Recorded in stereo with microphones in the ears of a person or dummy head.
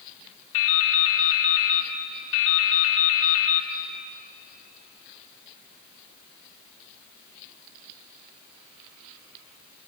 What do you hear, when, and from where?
0.5 s dripping: 75° left (ahead or behind), 2.5 m